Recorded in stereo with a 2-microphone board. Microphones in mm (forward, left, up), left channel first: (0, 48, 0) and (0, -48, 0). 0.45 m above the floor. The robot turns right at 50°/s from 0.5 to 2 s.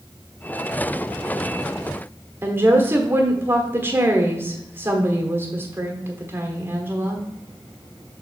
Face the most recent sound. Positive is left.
turn(degrees=-25)  # may be behind; listen again after turning